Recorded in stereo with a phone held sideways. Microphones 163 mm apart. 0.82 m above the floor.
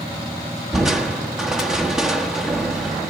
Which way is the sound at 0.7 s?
5° right (ahead or behind).